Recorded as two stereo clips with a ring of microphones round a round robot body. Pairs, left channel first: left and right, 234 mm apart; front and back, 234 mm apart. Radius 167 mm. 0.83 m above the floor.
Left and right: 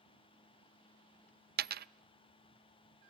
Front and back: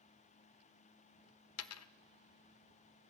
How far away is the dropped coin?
About 0.5 m.